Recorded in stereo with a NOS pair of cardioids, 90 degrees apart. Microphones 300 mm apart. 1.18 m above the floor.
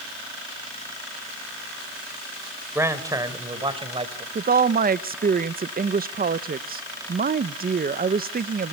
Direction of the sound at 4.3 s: 30° right.